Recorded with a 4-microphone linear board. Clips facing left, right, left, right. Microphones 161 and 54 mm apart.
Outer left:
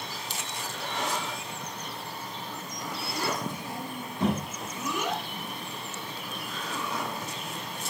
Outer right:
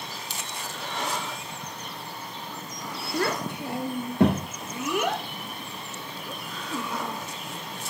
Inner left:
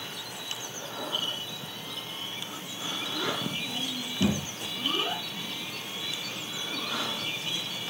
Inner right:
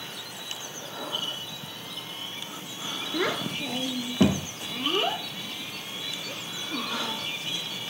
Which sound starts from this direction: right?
A child speaking, at 3.1 s.